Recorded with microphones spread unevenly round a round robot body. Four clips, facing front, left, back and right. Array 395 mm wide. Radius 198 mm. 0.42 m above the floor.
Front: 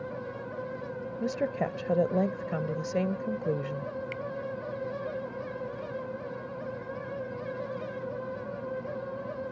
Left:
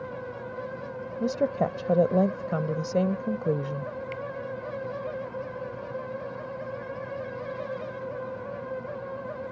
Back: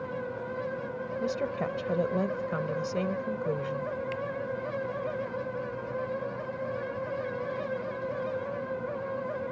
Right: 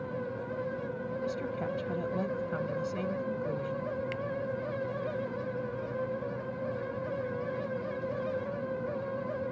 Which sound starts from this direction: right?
A finger snap, at 4.1 s.